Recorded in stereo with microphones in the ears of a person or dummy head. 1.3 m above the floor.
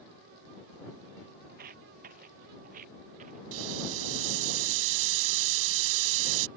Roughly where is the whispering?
I don't hear whispering.